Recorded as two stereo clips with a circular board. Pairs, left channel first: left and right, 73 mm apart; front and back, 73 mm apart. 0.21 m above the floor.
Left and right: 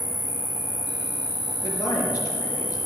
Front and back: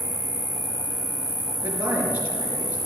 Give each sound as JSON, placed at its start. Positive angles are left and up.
{"t": 0.0, "sound": "an insect", "azimuth_deg": -105, "distance_m": 2.5}
{"t": 1.6, "sound": "a man speaking", "azimuth_deg": 120, "distance_m": 4.0}